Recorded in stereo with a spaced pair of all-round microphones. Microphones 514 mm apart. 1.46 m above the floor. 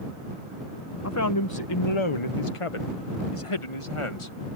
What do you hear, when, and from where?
1.0 s a man speaking: 30° left (ahead or behind); by 4.6 s 65° left (ahead or behind)